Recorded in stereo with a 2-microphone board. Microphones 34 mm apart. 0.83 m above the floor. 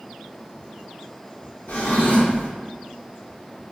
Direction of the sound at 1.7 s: 80° left.